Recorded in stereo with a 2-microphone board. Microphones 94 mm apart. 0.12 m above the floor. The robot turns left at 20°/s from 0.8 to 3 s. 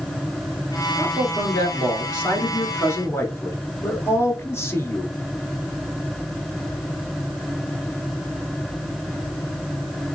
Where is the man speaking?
85° left, 1.3 m; by 5.1 s 40° left, 1.3 m.